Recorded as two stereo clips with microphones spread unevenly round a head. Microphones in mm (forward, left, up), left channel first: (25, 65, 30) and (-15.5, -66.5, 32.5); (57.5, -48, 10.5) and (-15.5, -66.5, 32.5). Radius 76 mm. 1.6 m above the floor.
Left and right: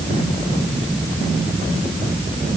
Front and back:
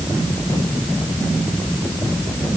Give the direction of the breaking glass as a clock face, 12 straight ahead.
I don't hear breaking glass.